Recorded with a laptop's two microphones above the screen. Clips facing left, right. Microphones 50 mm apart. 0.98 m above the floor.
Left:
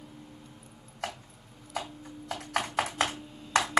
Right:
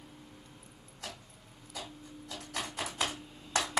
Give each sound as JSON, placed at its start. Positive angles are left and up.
{"t": 0.0, "sound": "a machine running", "side_deg": 80, "distance_m": 5.5}
{"t": 1.0, "sound": "typing on a keyboard", "side_deg": 70, "distance_m": 2.5}